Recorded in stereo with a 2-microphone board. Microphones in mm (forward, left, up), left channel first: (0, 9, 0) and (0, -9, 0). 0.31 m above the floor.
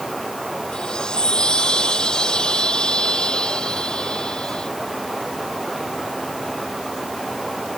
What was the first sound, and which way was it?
A chime, 55° left (ahead or behind).